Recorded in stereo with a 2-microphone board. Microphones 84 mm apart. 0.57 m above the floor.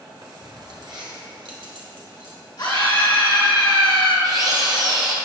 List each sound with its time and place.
0.2 s keys jangling: 55° right (ahead or behind), 1.5 m; by 2.4 s 70° right (ahead or behind), 3 m
2.6 s a scream: 60° left (ahead or behind), 3 m
4.2 s a drill: 50° right (ahead or behind), 1.9 m